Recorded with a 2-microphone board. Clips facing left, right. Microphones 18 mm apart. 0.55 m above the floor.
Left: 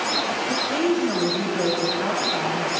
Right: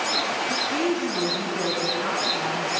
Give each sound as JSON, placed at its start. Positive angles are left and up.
{"t": 0.5, "sound": "a woman speaking", "side_deg": 75, "distance_m": 3.0}